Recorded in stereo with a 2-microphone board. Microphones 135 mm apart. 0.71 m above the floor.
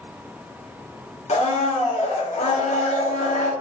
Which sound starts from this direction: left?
A blender, at 1.3 s.